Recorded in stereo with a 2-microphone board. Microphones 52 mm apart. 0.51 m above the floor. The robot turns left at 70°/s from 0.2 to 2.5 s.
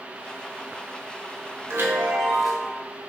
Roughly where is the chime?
Behind right.